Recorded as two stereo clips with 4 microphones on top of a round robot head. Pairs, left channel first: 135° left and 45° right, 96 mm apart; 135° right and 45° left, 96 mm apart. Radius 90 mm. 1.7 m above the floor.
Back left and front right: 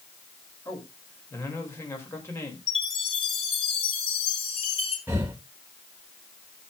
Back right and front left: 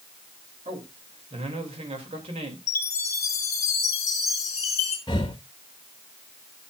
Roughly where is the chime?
Behind.